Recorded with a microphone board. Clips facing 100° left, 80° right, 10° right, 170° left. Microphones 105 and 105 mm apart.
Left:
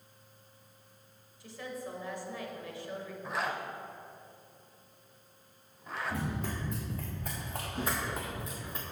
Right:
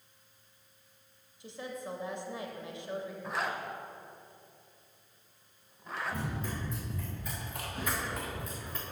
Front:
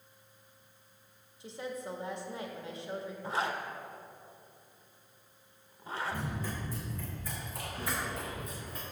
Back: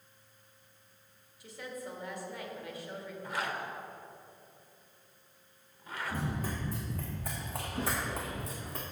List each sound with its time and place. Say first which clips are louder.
1.4 s a woman speaking: even, front 3 dB; 40° right, 1.0 m
3.2 s a zipper: left 2 dB, front 2 dB; 10° left, 0.7 m
6.1 s running footsteps: left 1 dB, back 2 dB; 125° left, 2.5 m; by 8.8 s straight behind, 2 m